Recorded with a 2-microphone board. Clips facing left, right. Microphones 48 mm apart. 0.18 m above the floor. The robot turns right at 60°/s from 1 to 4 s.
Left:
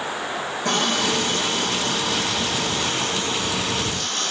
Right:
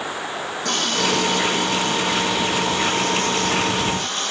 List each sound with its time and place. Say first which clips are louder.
0.7 s a running tap: even; 20° left, 6 m; by 4.3 s 160° right, 6 m